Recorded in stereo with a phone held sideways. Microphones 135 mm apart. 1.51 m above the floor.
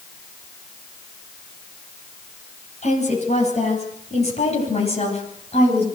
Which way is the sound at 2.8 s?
60° left (ahead or behind).